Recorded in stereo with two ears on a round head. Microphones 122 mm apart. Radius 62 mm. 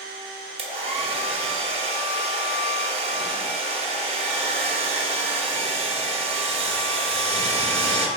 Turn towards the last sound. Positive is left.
turn(degrees=-45)  # may be behind; listen again after turning